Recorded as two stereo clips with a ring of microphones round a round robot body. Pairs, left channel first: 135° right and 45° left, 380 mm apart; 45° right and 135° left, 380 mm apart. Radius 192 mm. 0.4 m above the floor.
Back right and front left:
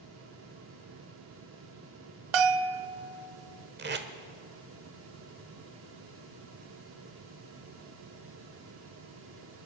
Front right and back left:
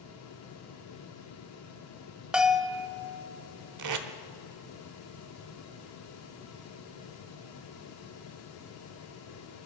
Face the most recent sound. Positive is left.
turn(degrees=105)